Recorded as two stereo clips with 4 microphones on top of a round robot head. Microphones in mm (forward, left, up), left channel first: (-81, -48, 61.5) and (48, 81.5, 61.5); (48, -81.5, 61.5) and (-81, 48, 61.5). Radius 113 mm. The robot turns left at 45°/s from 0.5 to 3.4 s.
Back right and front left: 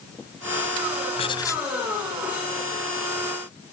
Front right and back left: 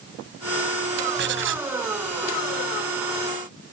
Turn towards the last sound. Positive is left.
turn(degrees=65)